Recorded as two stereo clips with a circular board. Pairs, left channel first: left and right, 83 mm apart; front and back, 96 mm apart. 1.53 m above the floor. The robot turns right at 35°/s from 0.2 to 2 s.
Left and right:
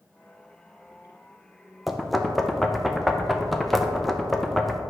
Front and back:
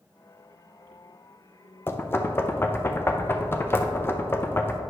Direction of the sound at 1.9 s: 5° right.